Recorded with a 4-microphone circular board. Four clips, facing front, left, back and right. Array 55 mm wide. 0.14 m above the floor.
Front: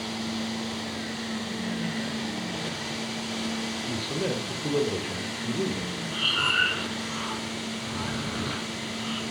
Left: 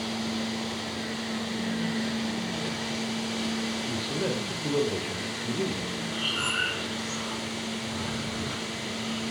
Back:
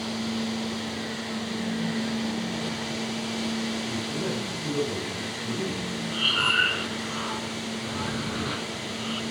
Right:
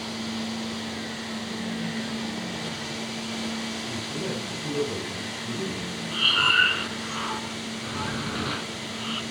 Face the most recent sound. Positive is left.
turn(degrees=-100)